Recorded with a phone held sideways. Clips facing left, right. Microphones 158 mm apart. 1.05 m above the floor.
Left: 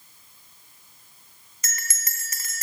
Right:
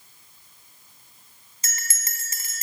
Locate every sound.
1.6 s a bell: 30° right (ahead or behind), 0.8 m